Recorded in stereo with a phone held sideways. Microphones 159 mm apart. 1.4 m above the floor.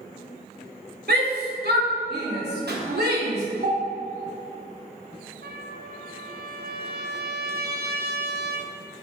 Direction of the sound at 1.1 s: 80° right.